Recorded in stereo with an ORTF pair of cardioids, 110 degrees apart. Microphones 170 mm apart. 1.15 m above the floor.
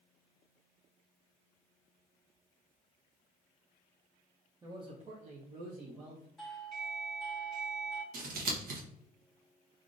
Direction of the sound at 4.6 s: 20° right.